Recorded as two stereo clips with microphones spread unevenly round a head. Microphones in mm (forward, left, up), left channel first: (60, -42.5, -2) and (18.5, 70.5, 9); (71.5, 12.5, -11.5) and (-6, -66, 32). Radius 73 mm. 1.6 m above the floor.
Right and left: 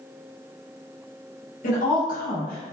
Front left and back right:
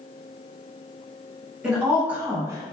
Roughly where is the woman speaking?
Ahead right.